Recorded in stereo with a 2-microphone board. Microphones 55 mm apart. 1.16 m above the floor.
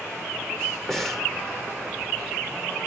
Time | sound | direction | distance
0.9 | breathing | centre (ahead or behind) | 2.0 m